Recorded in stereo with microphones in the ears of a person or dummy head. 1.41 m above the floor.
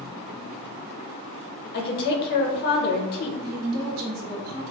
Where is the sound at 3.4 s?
50° right (ahead or behind), 1.0 m.